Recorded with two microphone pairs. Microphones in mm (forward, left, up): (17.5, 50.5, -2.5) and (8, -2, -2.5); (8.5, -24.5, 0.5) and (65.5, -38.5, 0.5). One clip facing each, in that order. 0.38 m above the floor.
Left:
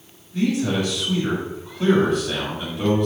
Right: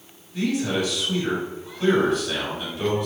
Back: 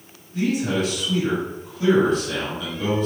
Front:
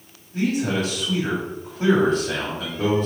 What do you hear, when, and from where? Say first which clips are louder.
0.3 s a man speaking: left 2 dB, even; 10° left, 1.8 m